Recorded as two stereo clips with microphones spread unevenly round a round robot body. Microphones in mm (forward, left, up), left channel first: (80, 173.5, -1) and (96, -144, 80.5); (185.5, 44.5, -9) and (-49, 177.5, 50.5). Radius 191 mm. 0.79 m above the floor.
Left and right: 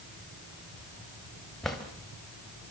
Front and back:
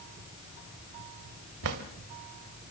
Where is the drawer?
175° right, 1.7 m.